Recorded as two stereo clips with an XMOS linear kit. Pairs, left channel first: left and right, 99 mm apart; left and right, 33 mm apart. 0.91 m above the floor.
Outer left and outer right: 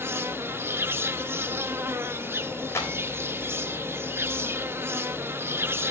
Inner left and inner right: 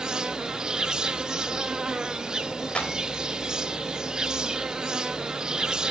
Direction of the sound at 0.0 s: 25° right (ahead or behind).